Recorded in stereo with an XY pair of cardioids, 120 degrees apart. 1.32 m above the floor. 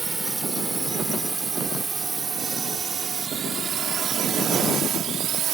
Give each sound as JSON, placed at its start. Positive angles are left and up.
{"t": 0.0, "sound": "a drone", "azimuth_deg": -15}